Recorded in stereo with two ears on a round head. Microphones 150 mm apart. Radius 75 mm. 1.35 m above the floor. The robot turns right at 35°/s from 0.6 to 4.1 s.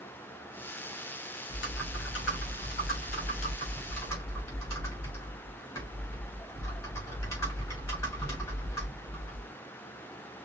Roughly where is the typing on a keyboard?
Left.